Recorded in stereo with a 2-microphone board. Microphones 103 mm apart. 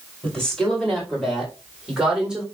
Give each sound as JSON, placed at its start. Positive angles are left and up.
{"t": 0.2, "sound": "a woman speaking", "side_deg": 5, "distance_m": 4.5}